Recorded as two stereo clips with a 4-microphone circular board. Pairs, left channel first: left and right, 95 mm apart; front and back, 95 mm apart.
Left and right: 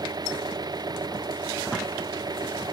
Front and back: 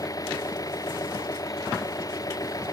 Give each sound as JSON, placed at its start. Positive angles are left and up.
{"t": 0.0, "sound": "an engine running", "azimuth_deg": -50}